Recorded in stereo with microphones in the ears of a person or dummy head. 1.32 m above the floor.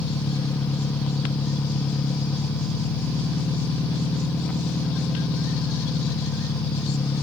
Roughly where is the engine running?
Centre.